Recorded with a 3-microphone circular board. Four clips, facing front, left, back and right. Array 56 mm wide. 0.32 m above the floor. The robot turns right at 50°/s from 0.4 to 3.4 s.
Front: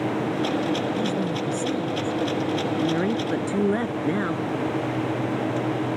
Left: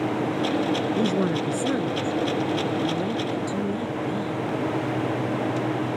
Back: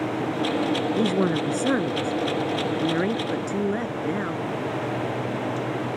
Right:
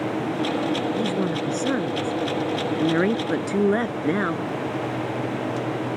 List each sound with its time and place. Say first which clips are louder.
1.0 s a woman speaking: left 1 dB, back 3 dB; 160° left; by 4.5 s 80° right